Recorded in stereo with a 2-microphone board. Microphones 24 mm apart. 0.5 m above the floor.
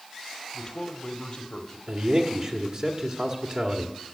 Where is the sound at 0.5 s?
45° left (ahead or behind), 1.4 m.